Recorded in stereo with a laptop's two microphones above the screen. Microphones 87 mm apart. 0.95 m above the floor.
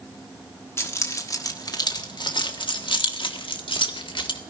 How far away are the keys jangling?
About 1.4 m.